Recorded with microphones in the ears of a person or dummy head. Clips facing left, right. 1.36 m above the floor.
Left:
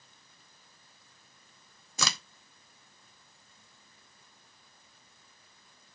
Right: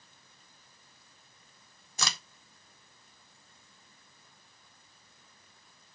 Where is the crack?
65° left (ahead or behind), 0.8 m.